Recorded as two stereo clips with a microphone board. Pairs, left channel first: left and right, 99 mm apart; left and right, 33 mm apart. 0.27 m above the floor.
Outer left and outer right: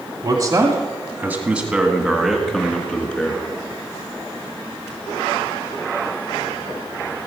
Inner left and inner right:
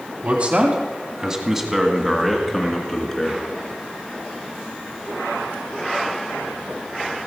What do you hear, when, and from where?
0.2 s a man speaking: 45° right (ahead or behind), 1.4 m; by 3.4 s 15° left (ahead or behind), 3 m